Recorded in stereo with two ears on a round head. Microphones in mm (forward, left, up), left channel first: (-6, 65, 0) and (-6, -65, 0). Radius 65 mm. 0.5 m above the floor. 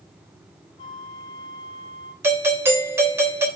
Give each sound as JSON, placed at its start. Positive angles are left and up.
{"t": 0.8, "sound": "a flute", "side_deg": 40, "distance_m": 2.5}
{"t": 2.2, "sound": "a doorbell", "side_deg": -20, "distance_m": 3.0}